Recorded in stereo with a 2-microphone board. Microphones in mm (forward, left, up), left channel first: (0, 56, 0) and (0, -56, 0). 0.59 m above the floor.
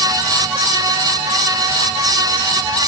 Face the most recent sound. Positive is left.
No sound to turn to.